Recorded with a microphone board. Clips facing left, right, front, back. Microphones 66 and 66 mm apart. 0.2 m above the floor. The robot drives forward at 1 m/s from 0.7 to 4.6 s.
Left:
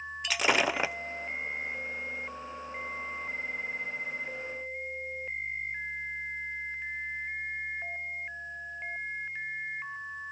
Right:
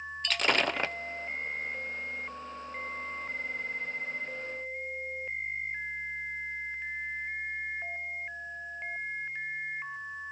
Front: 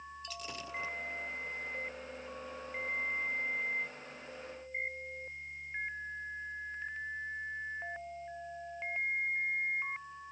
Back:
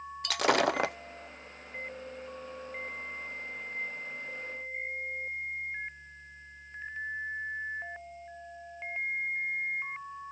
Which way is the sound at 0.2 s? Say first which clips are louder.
Left 1 dB, back 21 dB; 170° left.